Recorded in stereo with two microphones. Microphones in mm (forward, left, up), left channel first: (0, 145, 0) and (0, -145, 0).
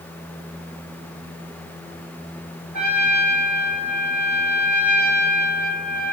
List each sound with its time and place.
2.7 s a trumpet: 75° right (ahead or behind), 4 m